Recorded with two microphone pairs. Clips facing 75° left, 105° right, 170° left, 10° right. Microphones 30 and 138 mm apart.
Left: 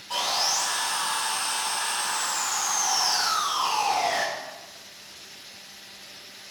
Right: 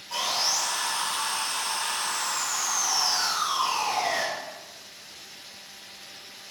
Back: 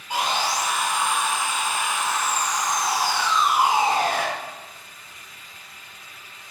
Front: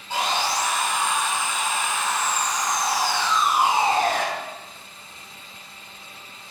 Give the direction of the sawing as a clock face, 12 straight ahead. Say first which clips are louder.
Left 1 dB, even; 9 o'clock.